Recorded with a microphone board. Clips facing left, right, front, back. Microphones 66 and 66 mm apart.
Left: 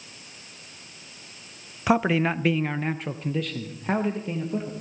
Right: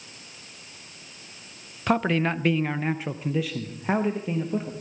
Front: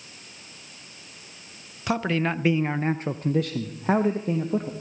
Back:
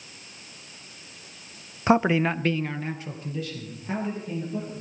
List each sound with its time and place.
1.9 s a man speaking: 165° left, 0.5 m; by 4.7 s 10° right, 1.6 m